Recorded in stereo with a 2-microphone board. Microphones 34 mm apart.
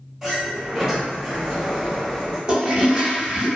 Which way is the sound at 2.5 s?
25° right (ahead or behind).